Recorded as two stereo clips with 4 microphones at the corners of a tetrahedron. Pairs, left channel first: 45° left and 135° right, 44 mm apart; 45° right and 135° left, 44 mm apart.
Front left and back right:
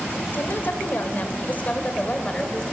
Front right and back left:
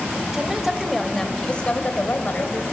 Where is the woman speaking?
60° left, 2 m; by 2.6 s 25° right, 2.5 m.